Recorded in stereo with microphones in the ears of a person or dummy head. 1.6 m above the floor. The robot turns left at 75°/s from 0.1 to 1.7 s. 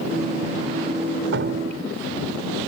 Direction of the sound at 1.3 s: 75° right (ahead or behind).